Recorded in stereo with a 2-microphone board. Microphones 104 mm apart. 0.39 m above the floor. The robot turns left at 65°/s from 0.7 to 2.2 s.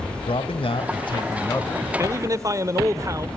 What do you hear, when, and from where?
0.3 s a man speaking: 90° left, 1.9 m; by 1.9 s 10° left, 1.9 m
2.0 s a man speaking: 30° right (ahead or behind), 1.0 m; by 3.3 s 35° right (ahead or behind), 1.0 m